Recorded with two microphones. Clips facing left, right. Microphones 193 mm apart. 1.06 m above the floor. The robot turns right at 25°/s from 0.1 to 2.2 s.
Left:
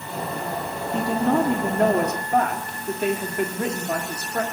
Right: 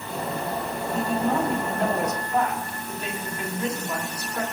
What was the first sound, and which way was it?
A woman speaking, 85° left.